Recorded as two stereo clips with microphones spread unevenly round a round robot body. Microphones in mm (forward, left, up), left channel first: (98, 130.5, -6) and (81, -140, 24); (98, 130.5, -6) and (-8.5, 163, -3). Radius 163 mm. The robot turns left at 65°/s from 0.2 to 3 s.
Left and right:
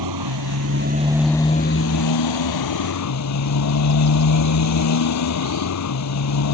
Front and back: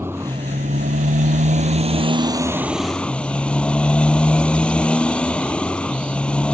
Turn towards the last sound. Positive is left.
turn(degrees=65)